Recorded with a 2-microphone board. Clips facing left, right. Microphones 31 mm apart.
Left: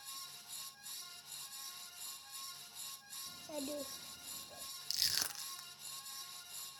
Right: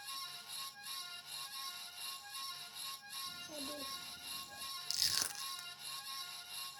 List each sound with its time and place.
3.3 s a child speaking: 35° left (ahead or behind), 0.5 m
4.9 s crushing: 5° left (ahead or behind), 0.9 m